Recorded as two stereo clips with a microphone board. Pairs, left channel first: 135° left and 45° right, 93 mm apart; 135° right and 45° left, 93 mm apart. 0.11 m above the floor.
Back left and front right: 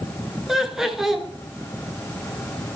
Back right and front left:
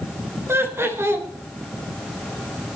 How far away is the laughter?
About 1.2 m.